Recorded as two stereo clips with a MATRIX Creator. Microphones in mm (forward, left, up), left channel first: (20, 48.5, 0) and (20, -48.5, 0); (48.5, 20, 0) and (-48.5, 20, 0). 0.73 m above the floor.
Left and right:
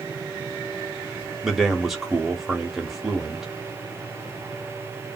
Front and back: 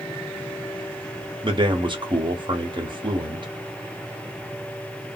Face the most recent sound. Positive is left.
turn(degrees=-175)